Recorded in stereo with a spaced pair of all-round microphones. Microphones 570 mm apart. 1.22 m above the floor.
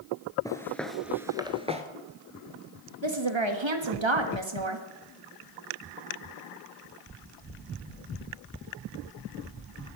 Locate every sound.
0.5 s footsteps: 5° left (ahead or behind), 1.3 m; by 1.8 s 10° right (ahead or behind), 1.3 m
3.0 s a woman speaking: 55° right (ahead or behind), 1.6 m